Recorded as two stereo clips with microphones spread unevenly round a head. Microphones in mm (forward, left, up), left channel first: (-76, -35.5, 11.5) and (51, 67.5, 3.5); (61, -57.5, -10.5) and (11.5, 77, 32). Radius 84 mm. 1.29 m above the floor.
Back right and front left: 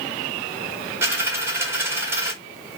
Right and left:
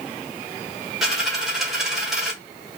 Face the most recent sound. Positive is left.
turn(degrees=95)